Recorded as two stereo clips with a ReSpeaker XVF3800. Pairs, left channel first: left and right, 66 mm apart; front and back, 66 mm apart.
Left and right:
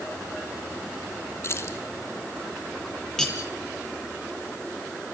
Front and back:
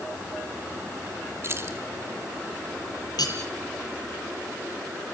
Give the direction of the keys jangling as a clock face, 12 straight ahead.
8 o'clock.